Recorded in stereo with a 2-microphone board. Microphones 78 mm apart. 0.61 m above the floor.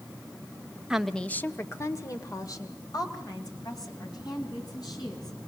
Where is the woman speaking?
10° right (ahead or behind), 0.7 m; by 5.4 s 65° left (ahead or behind), 5 m.